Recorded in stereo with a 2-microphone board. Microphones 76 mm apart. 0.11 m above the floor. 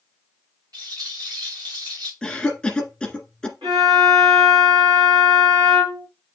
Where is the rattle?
55° right (ahead or behind), 2.5 m.